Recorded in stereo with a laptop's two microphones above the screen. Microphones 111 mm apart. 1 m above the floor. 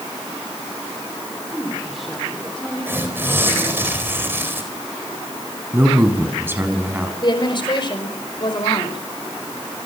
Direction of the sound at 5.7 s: 20° right (ahead or behind).